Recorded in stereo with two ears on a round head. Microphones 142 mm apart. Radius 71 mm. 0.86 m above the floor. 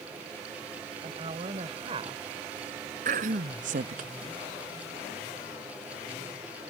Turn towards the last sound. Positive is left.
turn(degrees=-50)  # may be behind; listen again after turning